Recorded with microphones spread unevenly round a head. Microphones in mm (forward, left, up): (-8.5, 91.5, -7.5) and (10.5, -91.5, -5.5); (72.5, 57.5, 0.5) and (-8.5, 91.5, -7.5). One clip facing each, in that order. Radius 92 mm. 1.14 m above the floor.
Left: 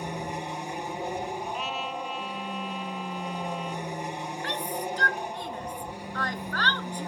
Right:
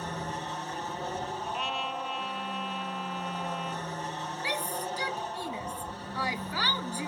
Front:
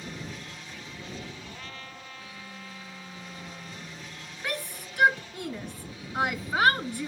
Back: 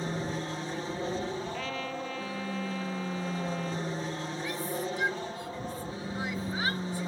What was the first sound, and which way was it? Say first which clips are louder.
An aircraft: left 3 dB, back 7 dB; 160° left.